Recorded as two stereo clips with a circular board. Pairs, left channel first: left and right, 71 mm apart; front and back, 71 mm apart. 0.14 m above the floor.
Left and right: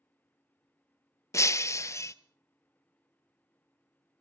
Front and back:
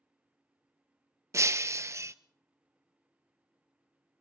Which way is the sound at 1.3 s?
135° left.